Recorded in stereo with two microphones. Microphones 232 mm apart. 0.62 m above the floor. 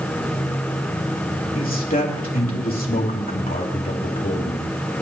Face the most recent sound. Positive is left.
turn(degrees=40)  # may be behind; listen again after turning